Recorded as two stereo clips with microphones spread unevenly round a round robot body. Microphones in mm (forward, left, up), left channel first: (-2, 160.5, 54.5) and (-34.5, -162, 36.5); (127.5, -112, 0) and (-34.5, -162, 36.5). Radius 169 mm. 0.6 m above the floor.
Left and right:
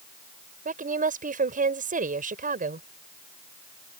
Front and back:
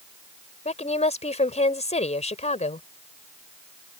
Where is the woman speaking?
30° right.